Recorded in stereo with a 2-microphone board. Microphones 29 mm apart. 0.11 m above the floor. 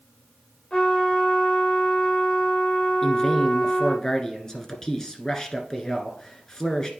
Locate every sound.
0.7 s a trumpet: 30° left (ahead or behind), 4 m
3.0 s a man speaking: 20° left (ahead or behind), 1.3 m